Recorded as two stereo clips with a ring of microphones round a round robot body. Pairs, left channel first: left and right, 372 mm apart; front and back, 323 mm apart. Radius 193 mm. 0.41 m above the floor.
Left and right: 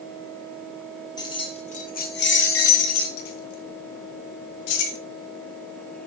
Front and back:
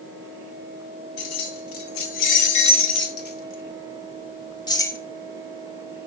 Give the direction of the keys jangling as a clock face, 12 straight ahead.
12 o'clock.